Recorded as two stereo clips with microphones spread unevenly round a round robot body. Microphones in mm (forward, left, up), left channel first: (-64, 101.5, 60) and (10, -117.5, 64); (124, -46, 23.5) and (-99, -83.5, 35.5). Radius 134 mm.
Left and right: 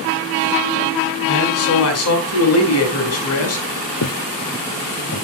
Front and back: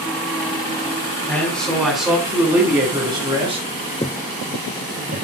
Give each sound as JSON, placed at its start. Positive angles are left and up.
{"t": 1.3, "sound": "a man speaking", "azimuth_deg": 90, "distance_m": 4.5}
{"t": 4.0, "sound": "footsteps", "azimuth_deg": 80, "distance_m": 0.9}